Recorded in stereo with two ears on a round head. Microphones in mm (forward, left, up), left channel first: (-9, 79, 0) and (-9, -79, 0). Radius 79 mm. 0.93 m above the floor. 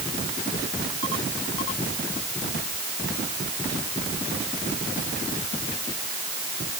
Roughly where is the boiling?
No boiling in this recording.